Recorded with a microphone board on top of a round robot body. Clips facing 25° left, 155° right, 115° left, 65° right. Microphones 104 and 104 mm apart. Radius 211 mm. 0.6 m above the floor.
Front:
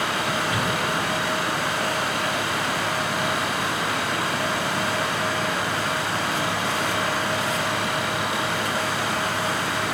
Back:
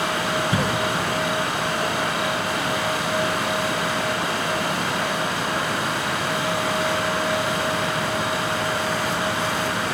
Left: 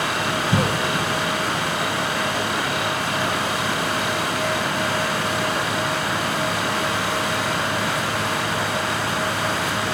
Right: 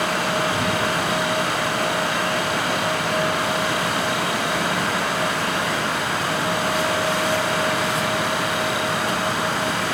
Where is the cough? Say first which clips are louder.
Back 2 dB, even; 145° left, 3.5 m.